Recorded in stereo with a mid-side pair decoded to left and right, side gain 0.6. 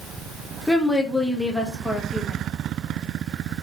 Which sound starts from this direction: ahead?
A woman speaking, at 0.7 s.